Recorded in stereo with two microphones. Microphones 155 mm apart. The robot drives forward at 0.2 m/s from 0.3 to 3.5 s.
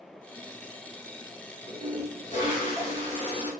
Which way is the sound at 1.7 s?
60° left (ahead or behind).